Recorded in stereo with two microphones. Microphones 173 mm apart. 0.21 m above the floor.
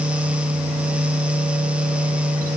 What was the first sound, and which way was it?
Only background noise.